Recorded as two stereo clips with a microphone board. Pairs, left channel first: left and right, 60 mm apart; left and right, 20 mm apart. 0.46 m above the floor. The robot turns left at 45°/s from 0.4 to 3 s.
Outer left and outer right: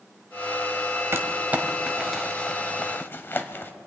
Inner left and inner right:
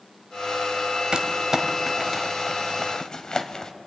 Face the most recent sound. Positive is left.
turn(degrees=40)  # may be behind; listen again after turning